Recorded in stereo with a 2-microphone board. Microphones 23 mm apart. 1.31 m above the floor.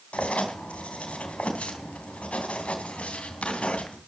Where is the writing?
65° left (ahead or behind), 3 m.